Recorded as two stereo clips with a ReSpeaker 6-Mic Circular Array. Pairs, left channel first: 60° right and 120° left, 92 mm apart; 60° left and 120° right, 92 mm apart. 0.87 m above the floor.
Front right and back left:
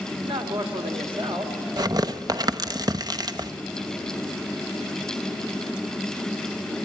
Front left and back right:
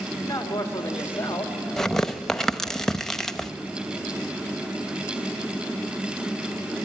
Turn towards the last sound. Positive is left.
turn(degrees=140)